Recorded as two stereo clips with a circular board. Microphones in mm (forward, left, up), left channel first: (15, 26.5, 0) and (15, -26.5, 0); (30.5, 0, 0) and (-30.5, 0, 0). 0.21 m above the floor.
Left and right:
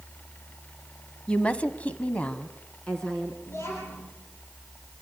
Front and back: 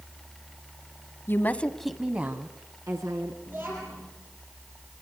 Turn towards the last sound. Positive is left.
turn(degrees=125)